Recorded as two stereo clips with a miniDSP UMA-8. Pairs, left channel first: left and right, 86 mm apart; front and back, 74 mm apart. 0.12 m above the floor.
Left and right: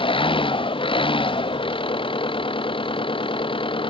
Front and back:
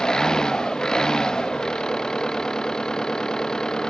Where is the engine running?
80° left.